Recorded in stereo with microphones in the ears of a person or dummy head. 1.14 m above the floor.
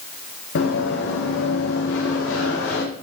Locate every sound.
0.6 s running footsteps: 60° left (ahead or behind), 5.5 m; by 2.8 s 65° left (ahead or behind), 7 m